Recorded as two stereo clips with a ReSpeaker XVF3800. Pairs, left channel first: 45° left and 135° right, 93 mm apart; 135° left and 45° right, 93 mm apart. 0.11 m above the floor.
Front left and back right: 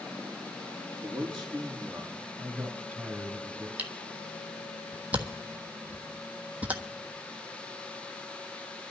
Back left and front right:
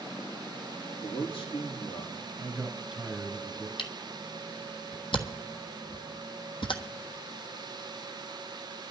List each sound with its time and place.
1.0 s a man speaking: 130° left, 5 m
2.4 s a man speaking: 100° right, 1.2 m
3.8 s a camera shutter: 150° left, 1.2 m